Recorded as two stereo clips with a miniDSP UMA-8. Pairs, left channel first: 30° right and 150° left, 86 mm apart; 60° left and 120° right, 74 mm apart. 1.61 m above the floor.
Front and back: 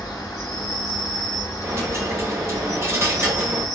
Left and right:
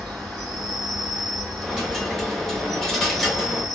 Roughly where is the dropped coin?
Behind left.